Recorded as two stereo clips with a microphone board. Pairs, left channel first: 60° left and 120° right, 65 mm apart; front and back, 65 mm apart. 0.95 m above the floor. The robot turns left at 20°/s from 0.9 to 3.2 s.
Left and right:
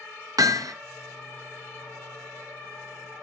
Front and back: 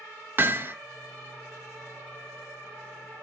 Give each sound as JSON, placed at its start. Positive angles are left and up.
{"t": 0.4, "sound": "hammering", "azimuth_deg": -125, "distance_m": 0.7}